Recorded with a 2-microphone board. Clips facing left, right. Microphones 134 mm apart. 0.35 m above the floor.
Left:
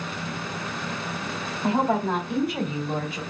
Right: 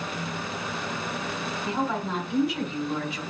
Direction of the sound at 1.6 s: 65° left (ahead or behind).